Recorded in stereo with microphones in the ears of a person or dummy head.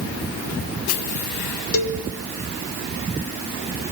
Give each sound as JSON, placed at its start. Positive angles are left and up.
{"t": 1.7, "sound": "a cowbell", "side_deg": 75, "distance_m": 3.0}